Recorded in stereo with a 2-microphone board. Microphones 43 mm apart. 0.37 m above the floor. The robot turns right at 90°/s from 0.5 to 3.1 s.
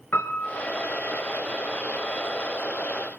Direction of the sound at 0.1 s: 70° left (ahead or behind).